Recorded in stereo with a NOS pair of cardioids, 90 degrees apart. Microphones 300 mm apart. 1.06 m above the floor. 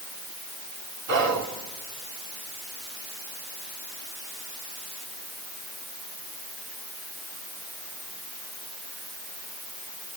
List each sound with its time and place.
1.1 s whispering: 65° right, 3 m